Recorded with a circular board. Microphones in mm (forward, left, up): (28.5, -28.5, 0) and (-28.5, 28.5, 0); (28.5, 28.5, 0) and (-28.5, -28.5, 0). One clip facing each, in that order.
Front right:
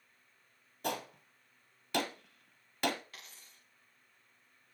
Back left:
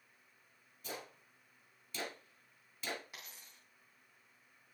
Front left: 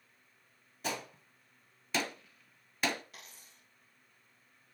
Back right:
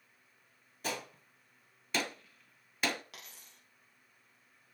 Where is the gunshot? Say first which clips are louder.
Front right 10 dB, front left 1 dB; 45° right, 1.1 m.